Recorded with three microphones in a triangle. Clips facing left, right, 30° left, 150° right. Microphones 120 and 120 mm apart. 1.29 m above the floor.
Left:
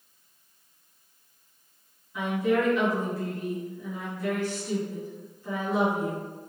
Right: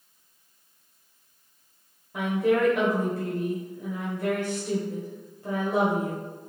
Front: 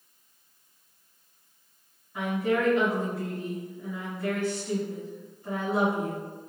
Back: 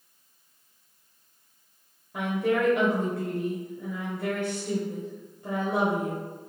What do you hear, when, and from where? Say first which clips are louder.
2.1 s a woman speaking: right 2 dB, back 1 dB; 125° right, 0.9 m